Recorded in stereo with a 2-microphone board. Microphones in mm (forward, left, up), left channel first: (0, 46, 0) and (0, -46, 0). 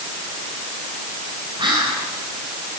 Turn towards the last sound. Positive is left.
turn(degrees=-60)  # may be behind; listen again after turning